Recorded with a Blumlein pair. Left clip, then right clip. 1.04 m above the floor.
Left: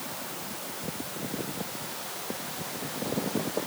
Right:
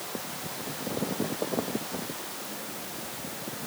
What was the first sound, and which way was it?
Only background noise.